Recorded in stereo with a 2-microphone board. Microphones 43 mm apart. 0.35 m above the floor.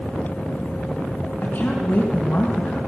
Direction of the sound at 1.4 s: 55° left (ahead or behind).